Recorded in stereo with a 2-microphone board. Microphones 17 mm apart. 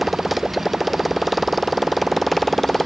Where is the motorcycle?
10° right (ahead or behind); by 2.9 s 10° left (ahead or behind).